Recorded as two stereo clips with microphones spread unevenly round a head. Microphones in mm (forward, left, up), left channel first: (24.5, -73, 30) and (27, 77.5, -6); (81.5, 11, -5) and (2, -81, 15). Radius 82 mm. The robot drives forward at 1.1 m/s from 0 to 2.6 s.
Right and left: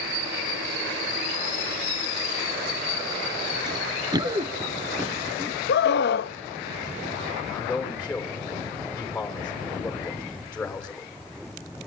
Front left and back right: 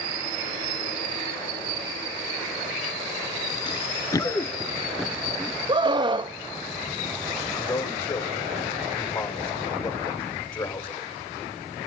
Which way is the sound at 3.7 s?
25° left.